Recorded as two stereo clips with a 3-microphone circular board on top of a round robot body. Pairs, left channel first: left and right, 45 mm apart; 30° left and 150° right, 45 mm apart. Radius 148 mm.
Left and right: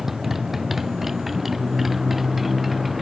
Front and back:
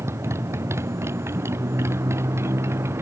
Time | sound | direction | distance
0.0 | a motorcycle | 175° right | ?